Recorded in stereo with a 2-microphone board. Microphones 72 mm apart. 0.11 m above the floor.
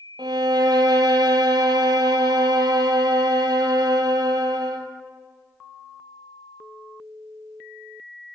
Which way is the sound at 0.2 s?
65° right (ahead or behind).